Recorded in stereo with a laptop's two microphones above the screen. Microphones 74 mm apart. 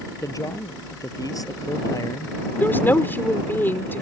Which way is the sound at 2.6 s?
30° left (ahead or behind).